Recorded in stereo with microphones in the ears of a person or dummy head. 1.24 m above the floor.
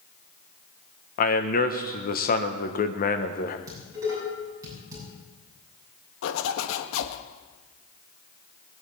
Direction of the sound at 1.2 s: 45° left (ahead or behind).